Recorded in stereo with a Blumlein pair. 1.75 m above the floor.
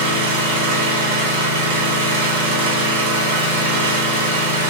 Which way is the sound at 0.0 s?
65° right.